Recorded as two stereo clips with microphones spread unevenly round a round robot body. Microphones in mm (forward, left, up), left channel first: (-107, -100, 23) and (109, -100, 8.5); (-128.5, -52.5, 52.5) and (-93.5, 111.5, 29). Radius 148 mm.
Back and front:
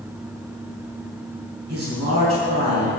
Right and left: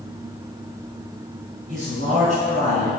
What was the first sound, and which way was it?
A man speaking, 20° left.